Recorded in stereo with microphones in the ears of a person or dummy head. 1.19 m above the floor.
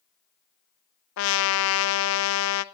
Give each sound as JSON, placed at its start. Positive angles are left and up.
{"t": 1.2, "sound": "a trumpet", "side_deg": 70, "distance_m": 0.5}